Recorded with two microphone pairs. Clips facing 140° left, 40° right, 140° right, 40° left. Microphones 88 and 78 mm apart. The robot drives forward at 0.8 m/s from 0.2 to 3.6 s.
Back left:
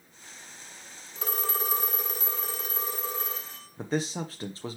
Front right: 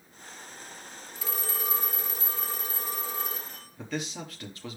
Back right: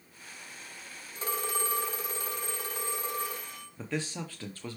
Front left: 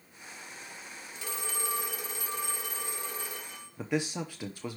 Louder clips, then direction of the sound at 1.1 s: Back left 5 dB, back right 5 dB; 175° left.